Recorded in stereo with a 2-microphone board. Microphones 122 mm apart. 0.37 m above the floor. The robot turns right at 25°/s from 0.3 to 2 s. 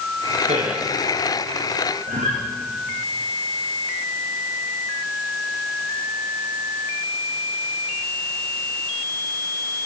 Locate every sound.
0.4 s a man speaking: 55° right (ahead or behind), 5.5 m; by 0.8 s 65° right (ahead or behind), 5.5 m
2.1 s a guitar: 85° right, 8.5 m